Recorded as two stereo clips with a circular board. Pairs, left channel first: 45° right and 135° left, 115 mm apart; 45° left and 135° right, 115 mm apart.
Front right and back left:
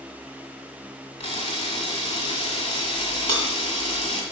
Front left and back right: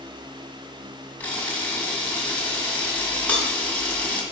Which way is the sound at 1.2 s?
30° right.